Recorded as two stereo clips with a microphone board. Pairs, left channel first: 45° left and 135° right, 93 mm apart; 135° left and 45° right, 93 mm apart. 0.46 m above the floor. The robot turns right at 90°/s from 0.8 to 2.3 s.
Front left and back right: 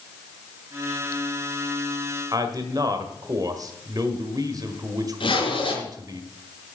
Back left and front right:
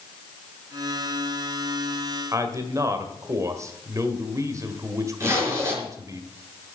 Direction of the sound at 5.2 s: 20° left.